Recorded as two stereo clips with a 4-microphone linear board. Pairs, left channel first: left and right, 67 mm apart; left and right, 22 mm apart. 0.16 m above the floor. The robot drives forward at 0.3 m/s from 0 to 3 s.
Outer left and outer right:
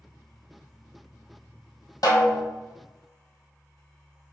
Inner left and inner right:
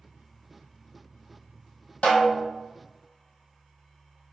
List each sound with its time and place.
2.0 s a snare drum: 75° left (ahead or behind), 1.6 m